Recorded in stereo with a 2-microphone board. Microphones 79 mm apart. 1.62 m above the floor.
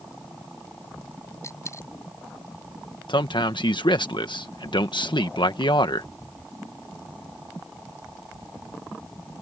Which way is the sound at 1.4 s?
40° left (ahead or behind).